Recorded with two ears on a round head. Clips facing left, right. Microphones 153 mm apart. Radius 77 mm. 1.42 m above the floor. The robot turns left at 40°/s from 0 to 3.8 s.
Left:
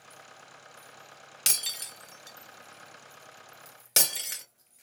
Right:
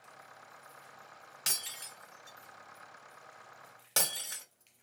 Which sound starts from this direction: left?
Breaking glass, at 1.5 s.